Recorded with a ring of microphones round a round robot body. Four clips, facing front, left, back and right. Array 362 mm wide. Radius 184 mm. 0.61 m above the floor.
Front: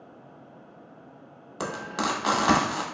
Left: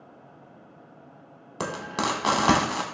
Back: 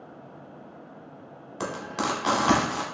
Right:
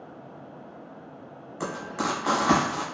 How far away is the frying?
About 0.8 m.